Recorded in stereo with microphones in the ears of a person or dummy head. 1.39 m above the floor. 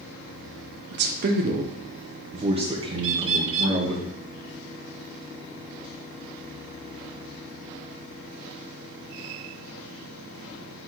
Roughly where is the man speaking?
Right.